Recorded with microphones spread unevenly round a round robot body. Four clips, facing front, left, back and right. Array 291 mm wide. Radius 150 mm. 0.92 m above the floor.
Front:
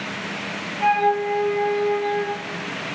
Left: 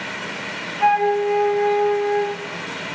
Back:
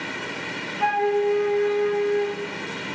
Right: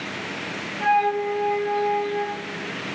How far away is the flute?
About 4.5 m.